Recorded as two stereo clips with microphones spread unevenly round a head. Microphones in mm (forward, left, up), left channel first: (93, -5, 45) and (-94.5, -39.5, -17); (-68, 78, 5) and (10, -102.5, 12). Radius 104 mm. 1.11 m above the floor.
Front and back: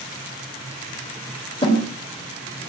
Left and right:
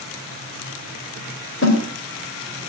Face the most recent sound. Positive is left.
turn(degrees=75)